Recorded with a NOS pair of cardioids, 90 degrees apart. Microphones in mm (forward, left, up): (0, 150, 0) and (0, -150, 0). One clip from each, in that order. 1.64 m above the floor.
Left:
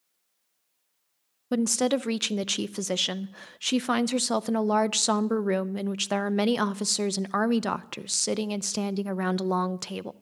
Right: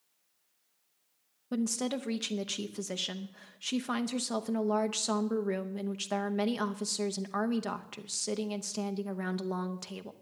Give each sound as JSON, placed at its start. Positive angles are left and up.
{"t": 1.5, "sound": "a woman speaking", "azimuth_deg": 40, "distance_m": 0.6}